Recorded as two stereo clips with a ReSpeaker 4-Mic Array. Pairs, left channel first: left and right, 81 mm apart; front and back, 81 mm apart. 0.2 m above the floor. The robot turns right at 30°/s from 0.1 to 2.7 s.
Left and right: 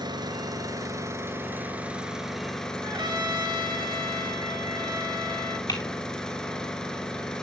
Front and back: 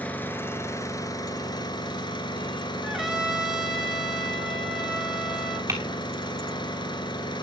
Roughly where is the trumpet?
Right.